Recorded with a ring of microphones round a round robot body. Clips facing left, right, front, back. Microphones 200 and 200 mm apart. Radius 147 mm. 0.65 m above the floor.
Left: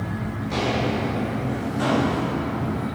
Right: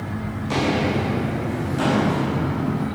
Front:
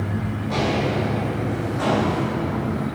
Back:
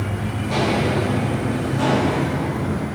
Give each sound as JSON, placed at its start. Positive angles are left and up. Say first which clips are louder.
{"t": 0.4, "sound": "footsteps", "louder": "right 3 dB, back 3 dB", "azimuth_deg": -105, "distance_m": 3.0}